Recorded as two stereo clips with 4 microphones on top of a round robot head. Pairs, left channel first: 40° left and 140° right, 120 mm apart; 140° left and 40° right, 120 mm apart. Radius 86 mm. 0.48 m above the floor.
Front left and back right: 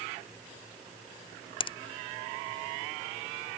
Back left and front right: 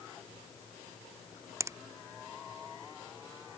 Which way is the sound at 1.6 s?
20° left.